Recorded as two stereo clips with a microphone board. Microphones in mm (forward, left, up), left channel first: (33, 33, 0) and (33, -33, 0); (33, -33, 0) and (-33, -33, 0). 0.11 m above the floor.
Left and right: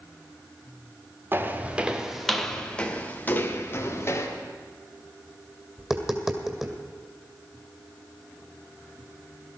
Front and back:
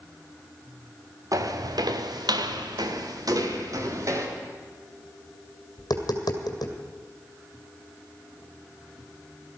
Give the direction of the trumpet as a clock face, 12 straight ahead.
I don't hear a trumpet.